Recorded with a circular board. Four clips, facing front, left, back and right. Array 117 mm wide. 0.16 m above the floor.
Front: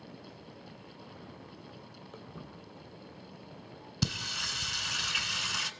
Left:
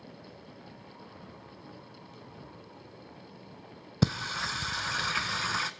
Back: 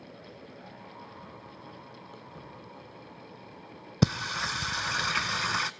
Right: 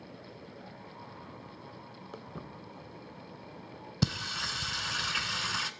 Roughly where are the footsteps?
Right.